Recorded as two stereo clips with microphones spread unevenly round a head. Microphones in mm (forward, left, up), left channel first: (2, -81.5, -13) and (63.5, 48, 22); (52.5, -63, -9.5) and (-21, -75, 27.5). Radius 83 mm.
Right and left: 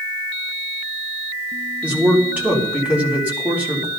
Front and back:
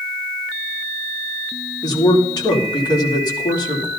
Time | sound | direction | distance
1.8 | a man speaking | 15° right | 3.5 m